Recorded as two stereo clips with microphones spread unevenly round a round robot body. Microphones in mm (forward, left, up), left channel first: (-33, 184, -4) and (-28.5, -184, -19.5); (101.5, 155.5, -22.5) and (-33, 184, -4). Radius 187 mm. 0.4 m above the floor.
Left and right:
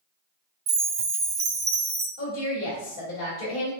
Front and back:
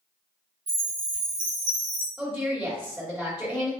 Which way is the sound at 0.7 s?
155° right.